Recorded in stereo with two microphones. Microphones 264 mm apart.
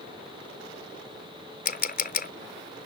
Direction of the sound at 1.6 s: 35° left (ahead or behind).